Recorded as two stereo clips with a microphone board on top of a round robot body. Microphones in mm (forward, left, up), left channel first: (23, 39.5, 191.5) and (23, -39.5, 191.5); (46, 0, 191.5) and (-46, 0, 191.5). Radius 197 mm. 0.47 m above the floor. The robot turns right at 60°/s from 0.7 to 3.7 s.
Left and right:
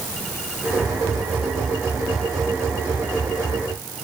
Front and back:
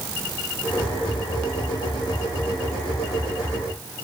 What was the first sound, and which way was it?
Only background noise.